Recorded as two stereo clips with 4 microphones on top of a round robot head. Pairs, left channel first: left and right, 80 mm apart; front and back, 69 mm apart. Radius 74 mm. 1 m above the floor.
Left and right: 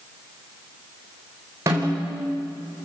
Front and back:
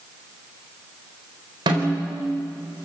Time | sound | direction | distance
1.7 | a snare drum | 150° right | 4 m